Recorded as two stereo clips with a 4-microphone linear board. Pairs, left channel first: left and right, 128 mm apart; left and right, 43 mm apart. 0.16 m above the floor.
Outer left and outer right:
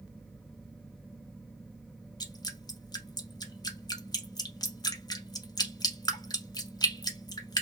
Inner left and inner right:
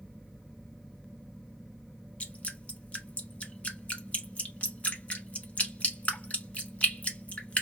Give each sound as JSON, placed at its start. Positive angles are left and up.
{"t": 2.2, "sound": "dripping", "side_deg": 30, "distance_m": 0.8}